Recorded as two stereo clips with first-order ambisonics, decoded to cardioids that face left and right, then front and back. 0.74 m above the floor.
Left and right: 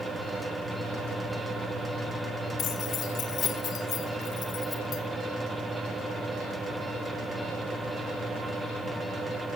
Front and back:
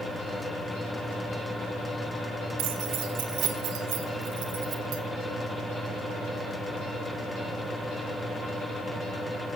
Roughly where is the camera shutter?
No camera shutter in this recording.